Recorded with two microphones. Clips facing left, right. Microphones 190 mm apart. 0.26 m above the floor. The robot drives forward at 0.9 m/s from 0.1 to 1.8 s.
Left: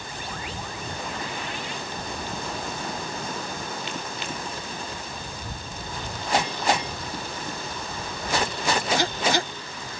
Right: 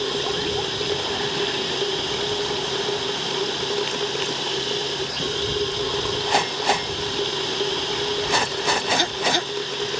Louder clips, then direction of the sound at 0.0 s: Right 12 dB; 85° right.